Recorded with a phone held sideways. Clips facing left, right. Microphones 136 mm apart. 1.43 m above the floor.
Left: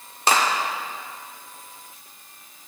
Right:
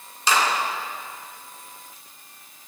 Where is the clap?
60° left (ahead or behind), 1.9 m.